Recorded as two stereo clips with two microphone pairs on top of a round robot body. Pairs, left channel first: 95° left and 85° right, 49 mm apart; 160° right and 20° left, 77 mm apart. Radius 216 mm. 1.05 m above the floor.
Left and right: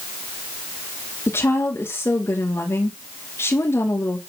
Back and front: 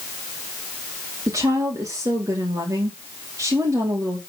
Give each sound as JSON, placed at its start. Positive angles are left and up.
{"t": 1.3, "sound": "a woman speaking", "azimuth_deg": 65, "distance_m": 2.5}